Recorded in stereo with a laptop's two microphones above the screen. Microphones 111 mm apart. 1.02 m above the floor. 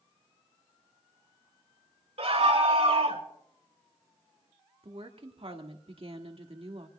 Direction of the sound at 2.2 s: 70° right (ahead or behind).